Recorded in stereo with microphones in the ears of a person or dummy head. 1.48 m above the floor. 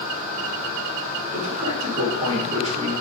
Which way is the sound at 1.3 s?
45° right (ahead or behind).